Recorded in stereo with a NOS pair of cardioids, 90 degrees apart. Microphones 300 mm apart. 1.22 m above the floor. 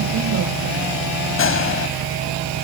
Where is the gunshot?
45° left.